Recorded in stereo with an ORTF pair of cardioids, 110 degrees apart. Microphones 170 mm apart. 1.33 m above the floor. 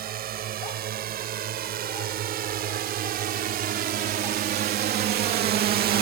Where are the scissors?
I don't hear scissors.